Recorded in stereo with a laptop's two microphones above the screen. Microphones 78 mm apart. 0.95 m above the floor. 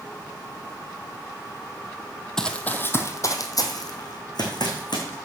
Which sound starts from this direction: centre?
Running footsteps, at 2.4 s.